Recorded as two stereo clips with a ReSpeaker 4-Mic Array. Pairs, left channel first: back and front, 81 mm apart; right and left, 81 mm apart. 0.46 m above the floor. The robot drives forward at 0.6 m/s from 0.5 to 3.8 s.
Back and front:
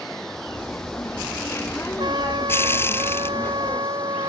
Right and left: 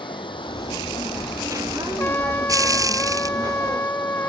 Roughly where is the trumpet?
Ahead right.